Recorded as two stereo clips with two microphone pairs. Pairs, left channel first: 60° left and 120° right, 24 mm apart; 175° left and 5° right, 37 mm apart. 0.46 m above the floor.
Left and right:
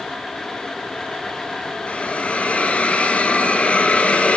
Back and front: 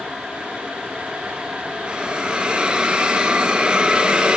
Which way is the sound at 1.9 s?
55° left.